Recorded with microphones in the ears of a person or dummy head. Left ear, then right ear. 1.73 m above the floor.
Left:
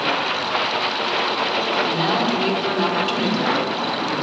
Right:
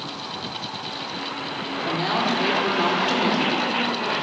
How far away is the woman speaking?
About 5 m.